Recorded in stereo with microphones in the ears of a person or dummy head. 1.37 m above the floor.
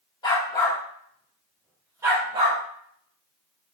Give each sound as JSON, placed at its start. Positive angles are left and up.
{"t": 0.2, "sound": "a dog barking", "side_deg": 30, "distance_m": 1.3}